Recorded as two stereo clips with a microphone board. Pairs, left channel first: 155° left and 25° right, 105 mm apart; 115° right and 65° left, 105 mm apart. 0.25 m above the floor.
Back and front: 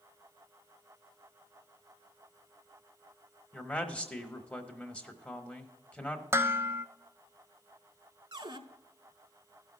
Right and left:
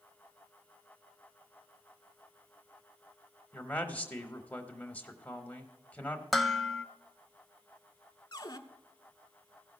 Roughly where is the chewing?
I don't hear chewing.